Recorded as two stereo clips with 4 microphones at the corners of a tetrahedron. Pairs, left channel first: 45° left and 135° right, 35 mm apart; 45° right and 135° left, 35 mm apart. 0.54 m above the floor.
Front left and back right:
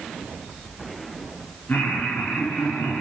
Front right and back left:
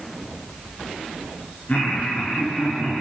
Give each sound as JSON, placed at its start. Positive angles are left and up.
{"t": 1.7, "sound": "laughter", "azimuth_deg": 5, "distance_m": 8.5}